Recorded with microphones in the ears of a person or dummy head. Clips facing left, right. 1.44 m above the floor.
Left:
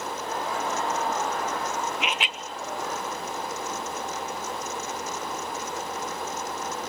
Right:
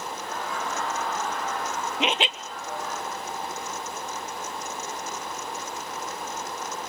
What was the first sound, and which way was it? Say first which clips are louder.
Laughter: left 3 dB; 25° left (ahead or behind).